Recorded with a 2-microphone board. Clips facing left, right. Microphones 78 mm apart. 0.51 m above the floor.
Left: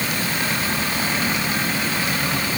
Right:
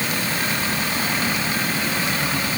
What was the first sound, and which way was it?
Only background noise.